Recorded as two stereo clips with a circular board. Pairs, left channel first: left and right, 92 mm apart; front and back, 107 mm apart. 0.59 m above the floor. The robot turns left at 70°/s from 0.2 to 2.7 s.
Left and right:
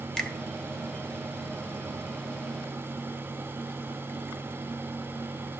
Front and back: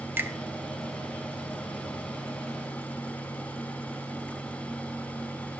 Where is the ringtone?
No ringtone in this recording.